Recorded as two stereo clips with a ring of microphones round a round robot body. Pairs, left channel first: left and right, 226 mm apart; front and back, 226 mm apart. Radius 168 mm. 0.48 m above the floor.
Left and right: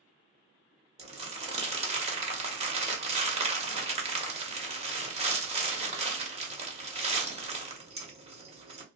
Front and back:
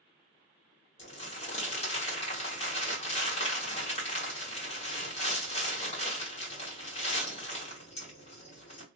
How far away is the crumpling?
About 1.2 m.